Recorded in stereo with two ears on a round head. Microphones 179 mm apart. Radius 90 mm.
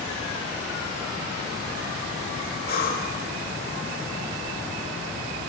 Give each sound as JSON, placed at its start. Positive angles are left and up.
{"t": 2.7, "sound": "breathing", "side_deg": 50, "distance_m": 2.5}